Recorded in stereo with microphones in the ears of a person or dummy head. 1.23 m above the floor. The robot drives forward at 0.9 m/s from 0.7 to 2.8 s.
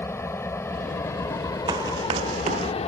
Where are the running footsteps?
15° right (ahead or behind); by 2.7 s 35° right (ahead or behind).